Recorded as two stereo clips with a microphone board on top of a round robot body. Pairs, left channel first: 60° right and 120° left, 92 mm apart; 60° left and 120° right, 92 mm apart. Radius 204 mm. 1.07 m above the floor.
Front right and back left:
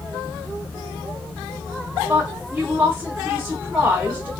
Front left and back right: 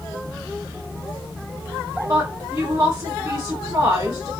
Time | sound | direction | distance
2.1 | a woman speaking | 170° right | 1.1 m